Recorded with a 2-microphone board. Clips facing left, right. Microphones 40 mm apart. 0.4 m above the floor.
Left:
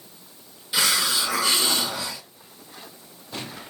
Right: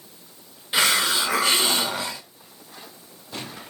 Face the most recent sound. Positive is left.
turn(degrees=-35)  # may be behind; listen again after turning